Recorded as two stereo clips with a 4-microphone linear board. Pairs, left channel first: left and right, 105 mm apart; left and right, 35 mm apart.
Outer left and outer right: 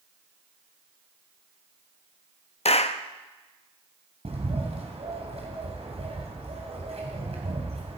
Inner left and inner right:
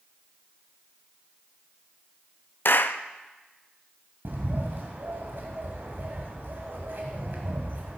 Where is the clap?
65° left (ahead or behind), 0.5 m.